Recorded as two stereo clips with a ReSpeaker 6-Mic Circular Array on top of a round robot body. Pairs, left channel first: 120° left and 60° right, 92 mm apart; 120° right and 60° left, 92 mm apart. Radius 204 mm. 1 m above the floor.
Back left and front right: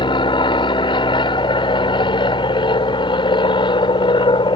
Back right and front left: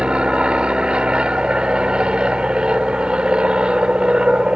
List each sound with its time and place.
0.0 s an aircraft: 140° left